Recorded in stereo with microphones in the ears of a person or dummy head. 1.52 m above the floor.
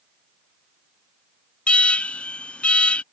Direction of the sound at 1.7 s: 5° left (ahead or behind).